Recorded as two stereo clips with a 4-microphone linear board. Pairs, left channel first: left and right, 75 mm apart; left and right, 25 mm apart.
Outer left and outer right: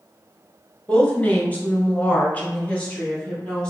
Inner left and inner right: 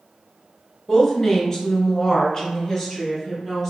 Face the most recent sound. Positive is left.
turn(degrees=15)  # may be behind; listen again after turning